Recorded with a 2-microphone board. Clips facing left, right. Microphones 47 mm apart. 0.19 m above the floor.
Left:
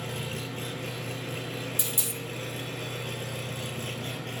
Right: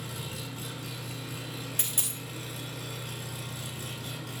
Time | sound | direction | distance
0.0 | an engine running | 45° left (ahead or behind) | 2 m
1.8 | a dropped coin | 50° right (ahead or behind) | 3.5 m